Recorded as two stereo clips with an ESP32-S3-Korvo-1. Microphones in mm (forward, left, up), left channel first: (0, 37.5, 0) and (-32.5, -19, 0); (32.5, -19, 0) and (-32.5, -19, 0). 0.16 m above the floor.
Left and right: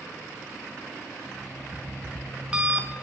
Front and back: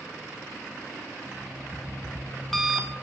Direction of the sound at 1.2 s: 85° right.